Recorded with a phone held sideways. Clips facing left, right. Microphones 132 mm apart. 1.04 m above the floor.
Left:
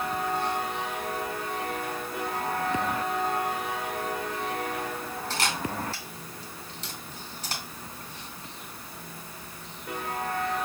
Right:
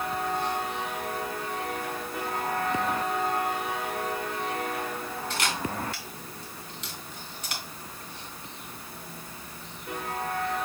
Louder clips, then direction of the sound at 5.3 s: Left 1 dB; 35° left (ahead or behind).